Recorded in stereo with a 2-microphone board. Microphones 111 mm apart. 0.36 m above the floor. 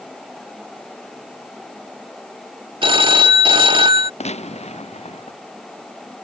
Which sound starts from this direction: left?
A gunshot, at 4.2 s.